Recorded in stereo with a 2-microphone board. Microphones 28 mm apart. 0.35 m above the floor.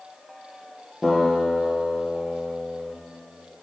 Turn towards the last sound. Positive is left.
turn(degrees=-5)  # may be behind; listen again after turning